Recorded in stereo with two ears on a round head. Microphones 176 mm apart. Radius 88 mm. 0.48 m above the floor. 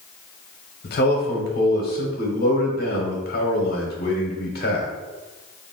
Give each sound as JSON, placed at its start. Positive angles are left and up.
{"t": 0.8, "sound": "a man speaking", "side_deg": 50, "distance_m": 1.2}